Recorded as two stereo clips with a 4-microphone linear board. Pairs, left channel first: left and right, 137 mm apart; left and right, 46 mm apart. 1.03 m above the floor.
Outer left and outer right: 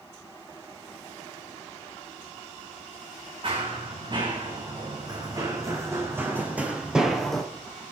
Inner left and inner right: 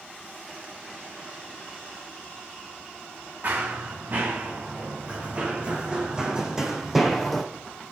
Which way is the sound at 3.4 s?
40° right (ahead or behind).